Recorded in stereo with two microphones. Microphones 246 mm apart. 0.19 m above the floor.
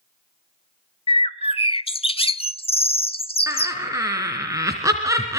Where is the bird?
25° left (ahead or behind), 0.6 m.